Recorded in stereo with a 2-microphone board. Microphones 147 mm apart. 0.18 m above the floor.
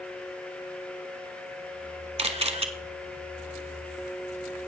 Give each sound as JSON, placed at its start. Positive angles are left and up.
{"t": 2.2, "sound": "a camera shutter", "side_deg": -45, "distance_m": 0.9}